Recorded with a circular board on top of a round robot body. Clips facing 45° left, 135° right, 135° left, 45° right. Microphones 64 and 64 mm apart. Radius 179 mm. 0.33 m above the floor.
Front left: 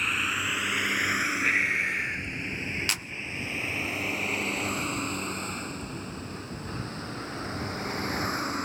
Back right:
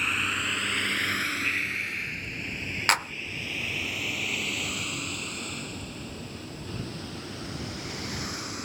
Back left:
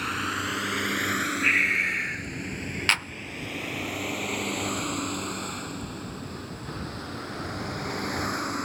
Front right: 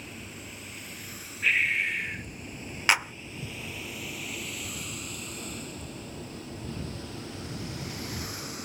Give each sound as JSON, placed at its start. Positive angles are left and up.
{"t": 0.0, "sound": "a vehicle", "azimuth_deg": 135}
{"t": 1.4, "sound": "breathing", "azimuth_deg": 75}
{"t": 2.9, "sound": "a clap", "azimuth_deg": -120}